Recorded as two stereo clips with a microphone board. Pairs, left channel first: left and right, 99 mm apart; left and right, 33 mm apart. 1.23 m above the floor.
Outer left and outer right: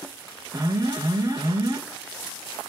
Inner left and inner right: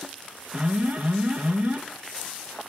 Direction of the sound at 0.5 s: 40° right (ahead or behind).